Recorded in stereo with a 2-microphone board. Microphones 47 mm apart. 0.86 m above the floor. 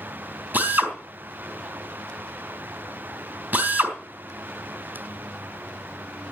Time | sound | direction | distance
0.5 | a drill | 40° right (ahead or behind) | 4 m